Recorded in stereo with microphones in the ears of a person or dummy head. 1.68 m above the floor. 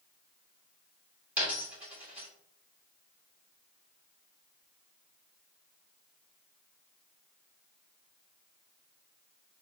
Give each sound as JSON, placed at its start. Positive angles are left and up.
{"t": 1.4, "sound": "a dropped coin", "side_deg": -10, "distance_m": 2.5}